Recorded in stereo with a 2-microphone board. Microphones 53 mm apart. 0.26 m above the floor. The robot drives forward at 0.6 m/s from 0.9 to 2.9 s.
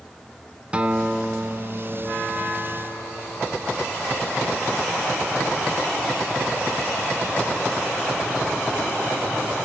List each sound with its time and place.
0.7 s a guitar: 20° right (ahead or behind), 1.2 m; by 4.0 s 10° right (ahead or behind), 2.5 m